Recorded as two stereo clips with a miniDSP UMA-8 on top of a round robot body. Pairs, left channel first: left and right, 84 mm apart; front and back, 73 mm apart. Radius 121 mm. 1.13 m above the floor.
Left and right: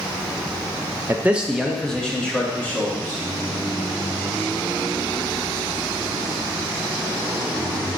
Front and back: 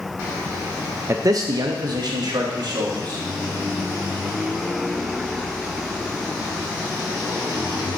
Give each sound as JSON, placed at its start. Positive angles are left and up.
{"t": 1.1, "sound": "a man speaking", "azimuth_deg": -145, "distance_m": 0.5}